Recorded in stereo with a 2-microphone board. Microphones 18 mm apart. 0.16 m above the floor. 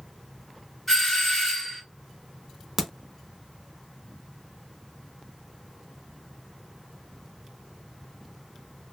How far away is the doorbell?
About 2 m.